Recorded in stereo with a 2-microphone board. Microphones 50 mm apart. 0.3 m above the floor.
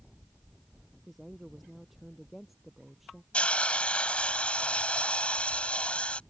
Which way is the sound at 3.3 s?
25° left (ahead or behind).